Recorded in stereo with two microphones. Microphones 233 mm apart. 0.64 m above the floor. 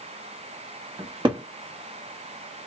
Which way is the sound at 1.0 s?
20° right (ahead or behind).